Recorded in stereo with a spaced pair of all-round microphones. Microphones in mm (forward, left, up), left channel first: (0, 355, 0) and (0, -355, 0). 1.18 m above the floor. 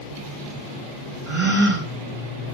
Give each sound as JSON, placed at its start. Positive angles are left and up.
{"t": 1.3, "sound": "a gasp", "side_deg": -20, "distance_m": 3.5}